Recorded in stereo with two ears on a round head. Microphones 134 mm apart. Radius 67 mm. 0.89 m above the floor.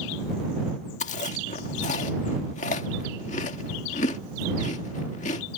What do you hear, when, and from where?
1.0 s chewing: 50° left (ahead or behind)